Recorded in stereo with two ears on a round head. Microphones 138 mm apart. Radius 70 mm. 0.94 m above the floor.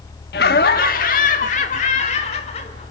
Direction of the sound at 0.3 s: 65° left (ahead or behind).